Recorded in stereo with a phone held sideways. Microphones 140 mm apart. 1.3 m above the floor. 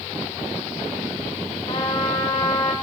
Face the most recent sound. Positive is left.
turn(degrees=45)  # may be behind; listen again after turning